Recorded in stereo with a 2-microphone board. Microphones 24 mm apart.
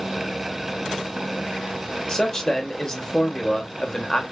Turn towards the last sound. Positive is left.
turn(degrees=25)  # may be behind; listen again after turning